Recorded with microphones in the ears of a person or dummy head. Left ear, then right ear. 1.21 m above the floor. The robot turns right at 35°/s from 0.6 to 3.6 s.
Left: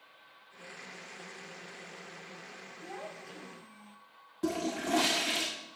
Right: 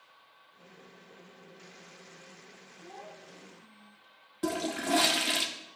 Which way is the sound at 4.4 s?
15° right (ahead or behind).